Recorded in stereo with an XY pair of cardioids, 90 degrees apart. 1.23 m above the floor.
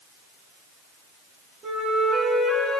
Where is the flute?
50° right, 6 m.